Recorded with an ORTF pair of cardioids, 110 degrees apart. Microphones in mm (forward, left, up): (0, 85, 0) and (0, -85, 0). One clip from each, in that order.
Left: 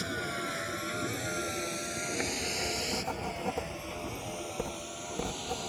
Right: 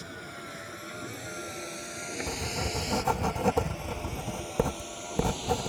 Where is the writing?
55° right.